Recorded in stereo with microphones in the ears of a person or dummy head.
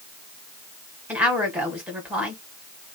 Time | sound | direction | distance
1.1 | a woman speaking | 5° right (ahead or behind) | 1.8 m